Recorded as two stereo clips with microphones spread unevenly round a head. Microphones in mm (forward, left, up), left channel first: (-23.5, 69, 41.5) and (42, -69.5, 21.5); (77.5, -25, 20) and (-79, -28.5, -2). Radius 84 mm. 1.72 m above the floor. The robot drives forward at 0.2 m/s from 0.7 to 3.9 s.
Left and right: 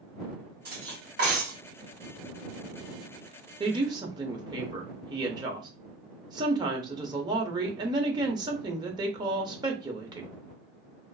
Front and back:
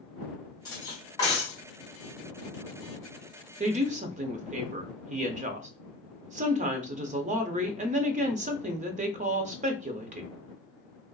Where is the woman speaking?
125° right, 0.5 m; by 10.3 s 130° right, 0.6 m.